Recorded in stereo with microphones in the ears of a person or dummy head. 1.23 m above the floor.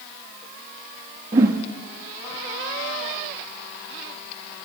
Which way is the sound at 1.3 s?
25° right (ahead or behind).